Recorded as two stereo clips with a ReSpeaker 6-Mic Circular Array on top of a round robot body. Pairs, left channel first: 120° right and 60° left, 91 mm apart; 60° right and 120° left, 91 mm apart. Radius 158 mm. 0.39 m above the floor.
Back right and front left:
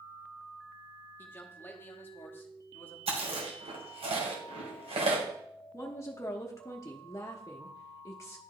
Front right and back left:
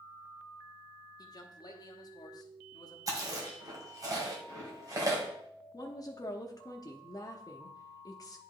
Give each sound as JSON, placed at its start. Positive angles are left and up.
{"t": 1.2, "sound": "a man speaking", "azimuth_deg": -65, "distance_m": 1.2}
{"t": 3.1, "sound": "chewing", "azimuth_deg": 65, "distance_m": 1.7}
{"t": 5.7, "sound": "a woman speaking", "azimuth_deg": -80, "distance_m": 0.9}